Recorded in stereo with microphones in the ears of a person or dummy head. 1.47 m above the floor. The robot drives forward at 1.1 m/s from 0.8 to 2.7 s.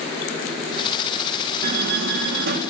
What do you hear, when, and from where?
1.6 s a door slam: 60° right (ahead or behind), 1.1 m; by 2.6 s 55° right (ahead or behind), 1.2 m